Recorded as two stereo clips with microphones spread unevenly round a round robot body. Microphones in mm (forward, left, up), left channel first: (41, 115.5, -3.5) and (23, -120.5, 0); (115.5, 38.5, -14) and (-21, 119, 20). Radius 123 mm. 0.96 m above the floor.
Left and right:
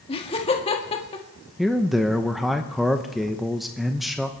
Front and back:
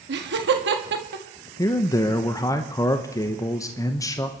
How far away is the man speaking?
About 0.8 m.